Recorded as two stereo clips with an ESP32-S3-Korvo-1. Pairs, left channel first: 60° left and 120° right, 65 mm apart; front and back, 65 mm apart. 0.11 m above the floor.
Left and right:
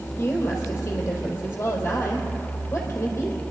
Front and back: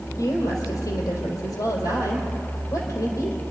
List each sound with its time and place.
0.2 s a woman speaking: 5° left, 3 m